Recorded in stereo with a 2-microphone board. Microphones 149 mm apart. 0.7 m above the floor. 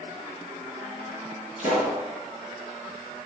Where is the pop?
50° right (ahead or behind), 5 m.